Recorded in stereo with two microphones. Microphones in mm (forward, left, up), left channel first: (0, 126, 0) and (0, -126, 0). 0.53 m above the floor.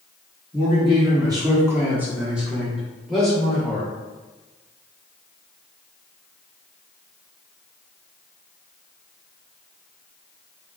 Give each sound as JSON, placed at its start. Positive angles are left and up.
{"t": 0.5, "sound": "a man speaking", "side_deg": -20, "distance_m": 0.9}